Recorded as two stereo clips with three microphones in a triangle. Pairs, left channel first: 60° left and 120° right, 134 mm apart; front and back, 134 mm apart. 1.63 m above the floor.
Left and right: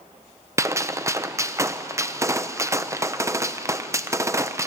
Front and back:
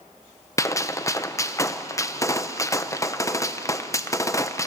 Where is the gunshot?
60° right, 0.7 m.